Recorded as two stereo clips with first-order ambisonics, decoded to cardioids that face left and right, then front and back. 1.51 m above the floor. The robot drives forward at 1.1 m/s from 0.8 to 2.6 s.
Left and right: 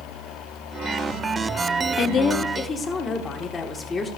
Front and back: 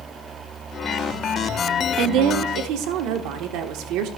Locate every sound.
2.0 s a woman speaking: 135° left, 0.6 m; by 4.1 s 160° left, 1.1 m